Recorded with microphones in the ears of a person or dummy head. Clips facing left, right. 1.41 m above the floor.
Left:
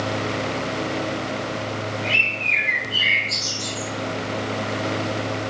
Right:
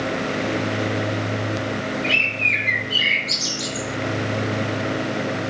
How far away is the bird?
About 0.6 m.